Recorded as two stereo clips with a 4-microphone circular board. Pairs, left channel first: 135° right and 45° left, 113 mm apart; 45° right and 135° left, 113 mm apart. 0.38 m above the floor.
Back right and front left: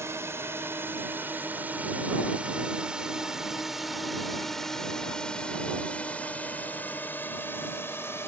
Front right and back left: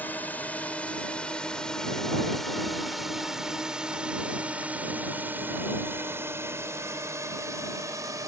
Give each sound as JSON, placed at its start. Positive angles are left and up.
{"t": 0.0, "sound": "a drone", "azimuth_deg": 10}